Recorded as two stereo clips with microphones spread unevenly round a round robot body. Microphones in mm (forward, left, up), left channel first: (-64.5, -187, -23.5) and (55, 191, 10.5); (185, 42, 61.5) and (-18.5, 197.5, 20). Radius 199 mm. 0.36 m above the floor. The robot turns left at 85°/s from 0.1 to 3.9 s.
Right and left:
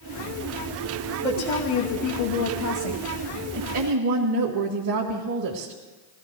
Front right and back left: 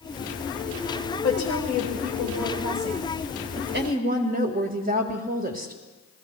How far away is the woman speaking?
About 1.7 m.